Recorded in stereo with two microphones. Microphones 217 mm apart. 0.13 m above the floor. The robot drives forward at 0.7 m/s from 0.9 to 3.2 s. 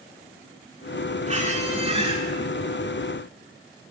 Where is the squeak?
35° right (ahead or behind), 0.8 m; by 2.2 s 25° right (ahead or behind), 1.0 m.